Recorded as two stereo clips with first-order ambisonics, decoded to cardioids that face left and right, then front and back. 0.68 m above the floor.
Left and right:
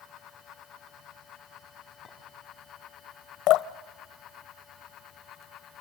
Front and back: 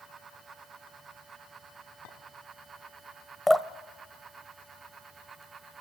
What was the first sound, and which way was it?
A clink, 10° left.